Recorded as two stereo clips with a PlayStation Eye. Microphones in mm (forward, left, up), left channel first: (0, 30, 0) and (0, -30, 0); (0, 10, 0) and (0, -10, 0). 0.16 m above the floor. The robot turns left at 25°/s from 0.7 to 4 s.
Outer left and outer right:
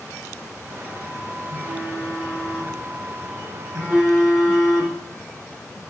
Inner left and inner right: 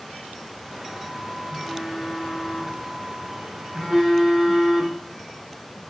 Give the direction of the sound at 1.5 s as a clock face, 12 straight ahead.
3 o'clock.